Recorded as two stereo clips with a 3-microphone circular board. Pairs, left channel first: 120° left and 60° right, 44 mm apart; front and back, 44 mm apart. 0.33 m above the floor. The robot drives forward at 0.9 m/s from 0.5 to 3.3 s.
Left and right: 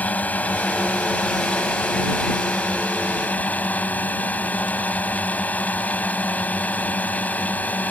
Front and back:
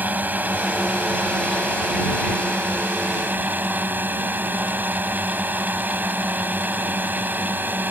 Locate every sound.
0.0 s a drone: 155° left; by 7.9 s 160° left